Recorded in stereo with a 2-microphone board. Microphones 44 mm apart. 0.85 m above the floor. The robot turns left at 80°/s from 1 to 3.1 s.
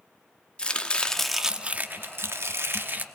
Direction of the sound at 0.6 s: 25° left.